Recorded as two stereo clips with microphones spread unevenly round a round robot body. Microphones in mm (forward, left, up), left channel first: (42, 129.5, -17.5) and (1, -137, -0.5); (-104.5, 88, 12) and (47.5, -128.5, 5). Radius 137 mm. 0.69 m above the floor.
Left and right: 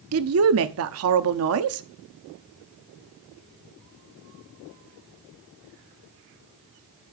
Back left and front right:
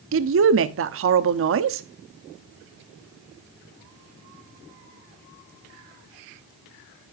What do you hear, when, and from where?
0.1 s a woman speaking: 75° right, 1.1 m